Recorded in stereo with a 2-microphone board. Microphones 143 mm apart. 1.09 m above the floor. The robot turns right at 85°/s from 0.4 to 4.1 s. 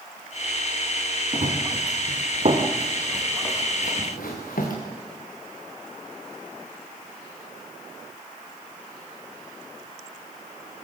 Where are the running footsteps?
45° right (ahead or behind), 4 m; by 4.8 s 75° left (ahead or behind), 5 m.